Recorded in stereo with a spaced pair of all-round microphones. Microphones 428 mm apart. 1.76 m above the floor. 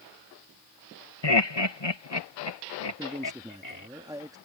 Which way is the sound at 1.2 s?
65° left (ahead or behind).